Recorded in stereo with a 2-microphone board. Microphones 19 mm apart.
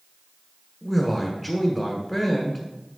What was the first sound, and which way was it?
A man speaking, 10° right (ahead or behind).